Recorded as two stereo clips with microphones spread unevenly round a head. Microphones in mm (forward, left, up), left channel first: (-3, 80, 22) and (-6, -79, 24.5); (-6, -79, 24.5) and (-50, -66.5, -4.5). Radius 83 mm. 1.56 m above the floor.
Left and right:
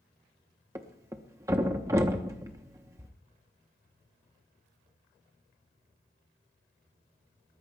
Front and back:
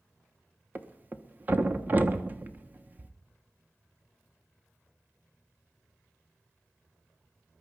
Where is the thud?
115° right, 1.0 m.